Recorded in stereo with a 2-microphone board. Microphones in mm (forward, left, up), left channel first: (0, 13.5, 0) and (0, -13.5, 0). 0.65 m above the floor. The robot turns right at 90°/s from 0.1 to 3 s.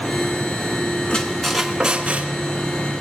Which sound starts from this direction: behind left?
A squeak, at 1.1 s.